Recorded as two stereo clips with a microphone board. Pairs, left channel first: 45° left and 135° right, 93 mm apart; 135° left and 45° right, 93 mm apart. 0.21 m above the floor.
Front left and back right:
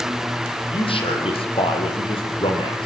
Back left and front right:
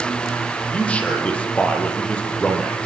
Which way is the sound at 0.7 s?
60° left.